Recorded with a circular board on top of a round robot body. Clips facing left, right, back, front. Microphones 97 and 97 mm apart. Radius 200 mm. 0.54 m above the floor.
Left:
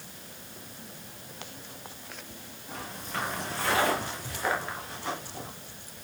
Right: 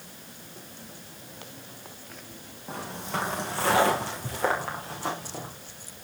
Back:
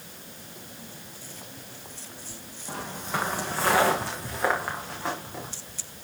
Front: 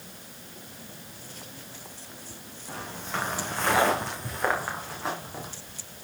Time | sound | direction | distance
2.7 | footsteps | 110° right | 2 m